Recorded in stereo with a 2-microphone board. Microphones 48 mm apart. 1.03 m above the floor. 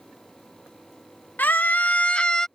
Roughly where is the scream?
Left.